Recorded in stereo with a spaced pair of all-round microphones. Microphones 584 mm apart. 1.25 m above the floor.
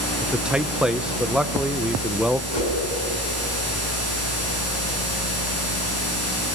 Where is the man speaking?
Centre (ahead or behind), 0.8 m.